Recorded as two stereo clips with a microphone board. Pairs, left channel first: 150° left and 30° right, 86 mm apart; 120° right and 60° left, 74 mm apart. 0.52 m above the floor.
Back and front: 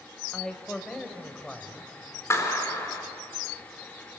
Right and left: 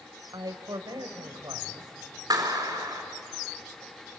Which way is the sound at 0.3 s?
65° left.